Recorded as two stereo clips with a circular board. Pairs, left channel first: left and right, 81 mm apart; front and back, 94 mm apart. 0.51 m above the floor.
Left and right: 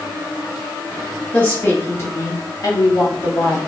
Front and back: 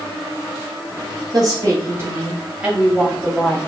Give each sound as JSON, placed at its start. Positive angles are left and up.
{"t": 1.3, "sound": "a woman speaking", "azimuth_deg": 160, "distance_m": 1.0}